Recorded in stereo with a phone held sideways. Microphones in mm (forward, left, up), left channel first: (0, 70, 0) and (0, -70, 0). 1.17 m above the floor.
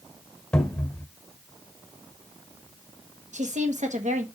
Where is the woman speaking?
60° right (ahead or behind), 1.5 m.